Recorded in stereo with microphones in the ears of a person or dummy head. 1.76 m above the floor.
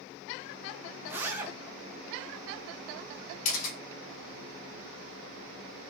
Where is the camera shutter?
45° left (ahead or behind), 3 m.